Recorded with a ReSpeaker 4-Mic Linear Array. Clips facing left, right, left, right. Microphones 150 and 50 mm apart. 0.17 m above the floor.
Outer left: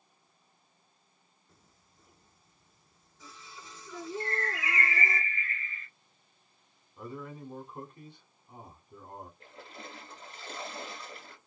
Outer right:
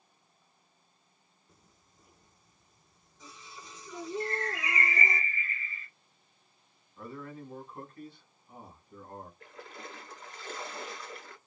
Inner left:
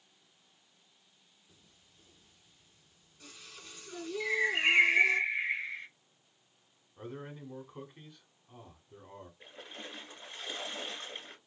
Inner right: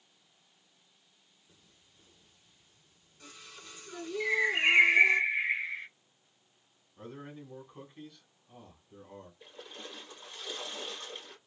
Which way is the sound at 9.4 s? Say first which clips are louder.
Outer right 1 dB, inner left 2 dB; 30° left (ahead or behind).